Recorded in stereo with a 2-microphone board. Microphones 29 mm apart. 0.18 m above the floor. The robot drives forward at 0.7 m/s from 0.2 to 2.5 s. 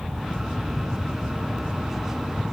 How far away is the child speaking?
I don't hear a child speaking.